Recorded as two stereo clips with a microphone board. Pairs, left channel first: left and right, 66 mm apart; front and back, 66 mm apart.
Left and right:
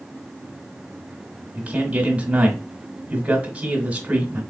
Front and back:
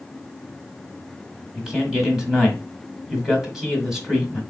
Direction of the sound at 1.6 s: 110° right.